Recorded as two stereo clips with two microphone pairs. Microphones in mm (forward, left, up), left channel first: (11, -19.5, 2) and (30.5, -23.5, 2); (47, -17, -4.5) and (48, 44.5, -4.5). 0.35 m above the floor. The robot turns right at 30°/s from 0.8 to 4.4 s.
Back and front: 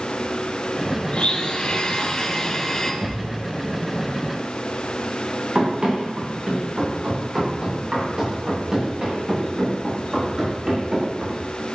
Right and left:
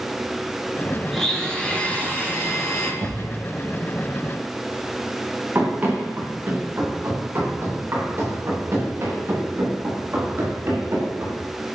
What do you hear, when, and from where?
1.1 s a blender: straight behind, 4 m; by 2.9 s 125° right, 4 m
3.0 s a thud: 50° left, 5 m; by 3.2 s 55° left, 5 m
5.5 s running footsteps: 30° left, 8 m; by 11.4 s 45° left, 12 m